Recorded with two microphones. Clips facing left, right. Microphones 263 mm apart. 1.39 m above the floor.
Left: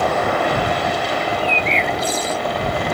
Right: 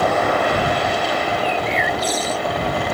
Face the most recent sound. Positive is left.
turn(degrees=30)  # may be behind; listen again after turning